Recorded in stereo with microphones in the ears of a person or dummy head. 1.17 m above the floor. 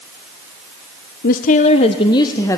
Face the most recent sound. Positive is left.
turn(degrees=15)  # may be behind; listen again after turning